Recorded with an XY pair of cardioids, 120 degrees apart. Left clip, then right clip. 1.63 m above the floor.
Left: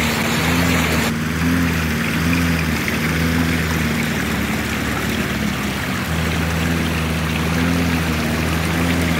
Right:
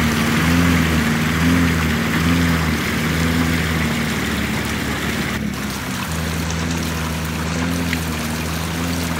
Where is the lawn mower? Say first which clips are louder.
Even; 20° right; by 9.2 s 25° left.